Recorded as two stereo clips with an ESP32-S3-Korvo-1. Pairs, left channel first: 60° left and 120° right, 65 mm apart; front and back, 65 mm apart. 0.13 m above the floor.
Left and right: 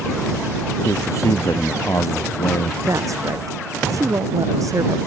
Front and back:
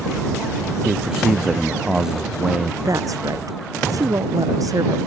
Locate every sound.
0.8 s a man speaking: 100° left
2.8 s a woman speaking: 150° right